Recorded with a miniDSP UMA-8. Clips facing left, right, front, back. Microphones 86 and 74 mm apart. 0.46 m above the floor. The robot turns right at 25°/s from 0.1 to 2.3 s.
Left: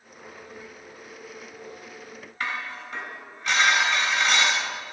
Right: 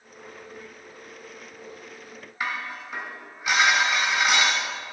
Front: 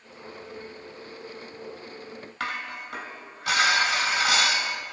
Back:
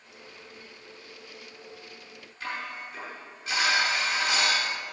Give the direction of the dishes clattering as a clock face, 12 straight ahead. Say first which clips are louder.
Right 1 dB, front 3 dB; 12 o'clock.